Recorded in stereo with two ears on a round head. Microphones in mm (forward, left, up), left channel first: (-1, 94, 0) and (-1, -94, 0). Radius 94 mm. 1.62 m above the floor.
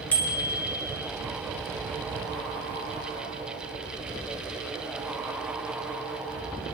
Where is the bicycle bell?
5° left (ahead or behind), 4 m.